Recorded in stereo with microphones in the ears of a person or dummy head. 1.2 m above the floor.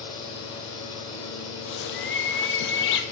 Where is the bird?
65° left (ahead or behind), 0.8 m.